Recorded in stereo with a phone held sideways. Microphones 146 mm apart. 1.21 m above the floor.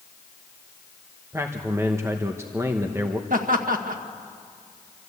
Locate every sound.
1.3 s a man speaking: 15° right (ahead or behind), 1.0 m
3.3 s laughter: 70° right (ahead or behind), 1.8 m